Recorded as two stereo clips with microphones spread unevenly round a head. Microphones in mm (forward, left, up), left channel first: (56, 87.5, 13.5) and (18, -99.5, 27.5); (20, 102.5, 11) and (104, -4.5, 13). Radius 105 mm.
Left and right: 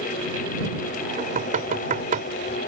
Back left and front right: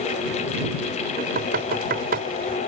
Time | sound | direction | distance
1.2 | knocking | 55° right | ?